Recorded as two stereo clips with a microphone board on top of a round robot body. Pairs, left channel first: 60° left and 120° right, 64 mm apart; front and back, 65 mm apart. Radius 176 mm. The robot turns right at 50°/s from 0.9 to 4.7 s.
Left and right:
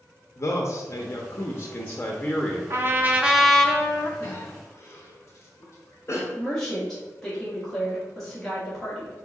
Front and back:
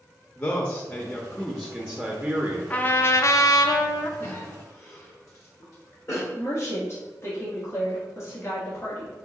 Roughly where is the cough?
Ahead.